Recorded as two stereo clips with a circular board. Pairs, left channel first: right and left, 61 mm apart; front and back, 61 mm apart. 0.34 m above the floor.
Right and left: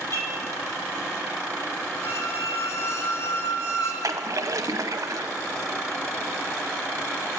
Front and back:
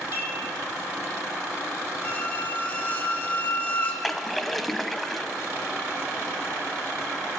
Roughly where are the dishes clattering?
Behind right.